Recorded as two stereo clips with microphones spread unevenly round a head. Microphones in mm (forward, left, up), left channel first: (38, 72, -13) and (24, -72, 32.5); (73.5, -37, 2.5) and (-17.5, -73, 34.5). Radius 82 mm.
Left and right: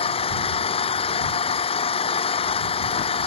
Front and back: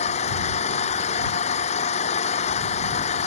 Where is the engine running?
35° left.